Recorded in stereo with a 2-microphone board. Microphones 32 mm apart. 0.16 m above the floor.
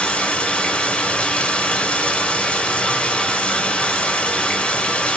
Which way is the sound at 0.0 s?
35° left (ahead or behind).